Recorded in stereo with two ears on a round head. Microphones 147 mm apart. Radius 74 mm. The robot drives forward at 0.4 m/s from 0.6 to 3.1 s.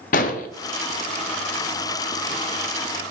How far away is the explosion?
About 0.5 m.